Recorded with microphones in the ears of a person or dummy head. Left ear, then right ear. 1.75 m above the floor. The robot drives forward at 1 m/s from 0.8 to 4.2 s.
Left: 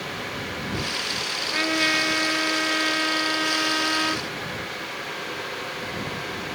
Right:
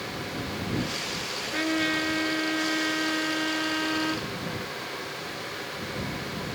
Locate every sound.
1.4 s a trumpet: 25° left (ahead or behind); by 4.3 s 35° left (ahead or behind)